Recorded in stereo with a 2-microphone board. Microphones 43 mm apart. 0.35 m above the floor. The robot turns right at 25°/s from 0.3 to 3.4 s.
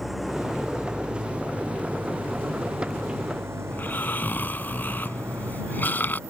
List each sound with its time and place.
0.0 s an engine running: 175° right; by 6.3 s 100° right
3.7 s snoring: 50° left (ahead or behind)